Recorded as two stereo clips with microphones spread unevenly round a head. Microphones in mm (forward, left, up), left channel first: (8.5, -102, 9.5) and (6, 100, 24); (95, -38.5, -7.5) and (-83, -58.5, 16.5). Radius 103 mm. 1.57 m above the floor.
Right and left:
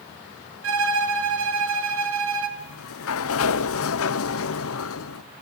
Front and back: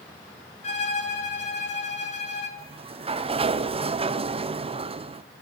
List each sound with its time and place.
0.6 s a violin: 70° left, 2.5 m
2.6 s a sliding door: 115° right, 0.7 m